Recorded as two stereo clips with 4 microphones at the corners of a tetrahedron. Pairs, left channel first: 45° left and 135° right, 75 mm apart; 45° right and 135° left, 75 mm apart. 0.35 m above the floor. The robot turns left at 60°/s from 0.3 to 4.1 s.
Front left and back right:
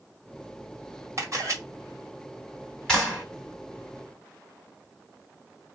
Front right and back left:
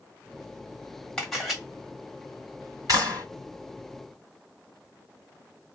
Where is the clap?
125° left, 2.5 m; by 3.2 s 100° left, 2.5 m.